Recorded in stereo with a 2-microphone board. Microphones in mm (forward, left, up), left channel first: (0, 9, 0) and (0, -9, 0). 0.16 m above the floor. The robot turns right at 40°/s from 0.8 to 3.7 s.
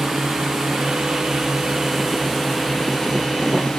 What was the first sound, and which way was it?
A drone, 55° right (ahead or behind).